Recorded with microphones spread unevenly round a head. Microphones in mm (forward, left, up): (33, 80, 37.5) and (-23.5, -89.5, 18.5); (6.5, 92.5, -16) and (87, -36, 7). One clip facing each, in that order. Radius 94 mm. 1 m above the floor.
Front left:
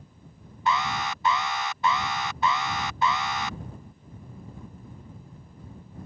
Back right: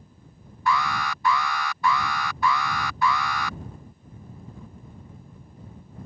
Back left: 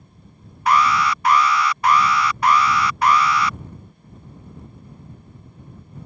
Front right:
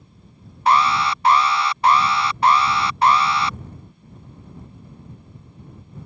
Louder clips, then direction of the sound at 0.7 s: Back right 2 dB, even; 5° left.